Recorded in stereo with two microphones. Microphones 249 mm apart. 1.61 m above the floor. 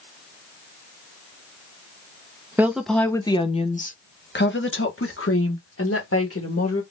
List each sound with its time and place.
2.6 s a woman speaking: 10° right (ahead or behind), 1.0 m; by 6.8 s 75° left (ahead or behind), 2.5 m